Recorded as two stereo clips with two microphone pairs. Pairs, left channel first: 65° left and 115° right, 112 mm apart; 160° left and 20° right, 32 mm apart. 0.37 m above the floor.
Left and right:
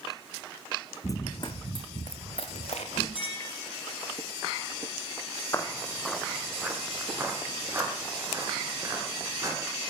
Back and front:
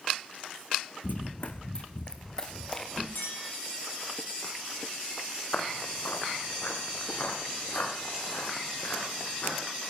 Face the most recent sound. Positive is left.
turn(degrees=-175)